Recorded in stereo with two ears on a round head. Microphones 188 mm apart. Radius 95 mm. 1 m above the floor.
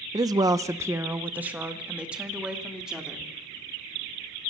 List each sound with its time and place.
0.1 s a woman speaking: 15° right (ahead or behind), 0.6 m; by 3.3 s 5° right (ahead or behind), 3 m